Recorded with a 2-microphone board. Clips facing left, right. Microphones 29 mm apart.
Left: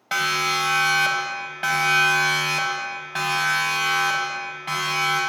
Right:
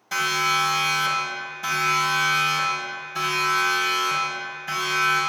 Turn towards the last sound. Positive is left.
turn(degrees=55)  # may be behind; listen again after turning